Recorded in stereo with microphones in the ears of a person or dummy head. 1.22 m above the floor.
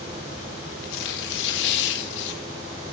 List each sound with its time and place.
0.8 s tearing paper: 65° left (ahead or behind), 1.5 m